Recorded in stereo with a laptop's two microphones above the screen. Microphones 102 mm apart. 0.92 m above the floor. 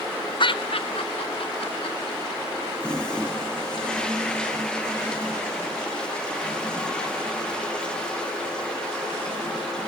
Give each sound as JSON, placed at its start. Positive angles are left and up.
{"t": 0.4, "sound": "laughter", "side_deg": 50, "distance_m": 1.2}
{"t": 2.8, "sound": "a toilet flushing", "side_deg": 10, "distance_m": 1.8}